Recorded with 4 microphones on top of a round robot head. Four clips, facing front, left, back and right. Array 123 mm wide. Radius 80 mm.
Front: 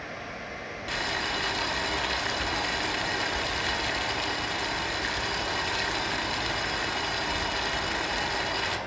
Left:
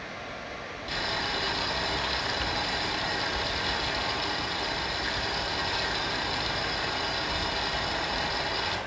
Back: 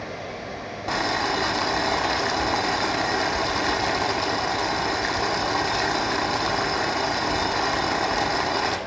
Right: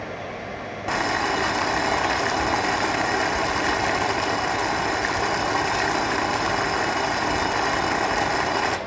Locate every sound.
0.9 s boiling: 125° right, 1.8 m